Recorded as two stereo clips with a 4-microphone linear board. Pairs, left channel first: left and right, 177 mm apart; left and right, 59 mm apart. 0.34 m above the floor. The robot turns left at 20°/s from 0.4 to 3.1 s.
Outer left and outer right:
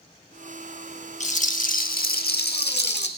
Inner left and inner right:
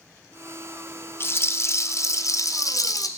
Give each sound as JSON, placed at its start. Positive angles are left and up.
{"t": 1.2, "sound": "a rattle", "azimuth_deg": 140, "distance_m": 1.2}